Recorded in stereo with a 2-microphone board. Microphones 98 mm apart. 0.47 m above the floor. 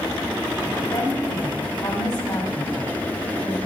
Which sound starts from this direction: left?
A woman speaking, at 0.8 s.